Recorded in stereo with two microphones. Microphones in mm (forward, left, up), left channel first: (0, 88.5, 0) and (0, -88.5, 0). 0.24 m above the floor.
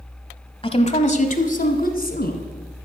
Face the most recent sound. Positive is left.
turn(degrees=65)  # may be behind; listen again after turning